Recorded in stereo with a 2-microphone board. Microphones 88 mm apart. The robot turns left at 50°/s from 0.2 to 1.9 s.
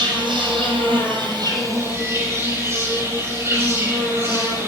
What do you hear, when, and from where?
0.0 s an insect: 65° right, 2.5 m; by 4.7 s 150° right, 2.5 m